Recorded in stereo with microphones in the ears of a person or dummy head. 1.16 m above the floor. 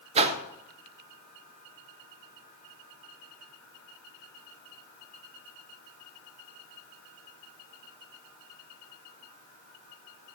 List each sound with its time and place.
0.1 s a whoosh: 30° right (ahead or behind), 1.4 m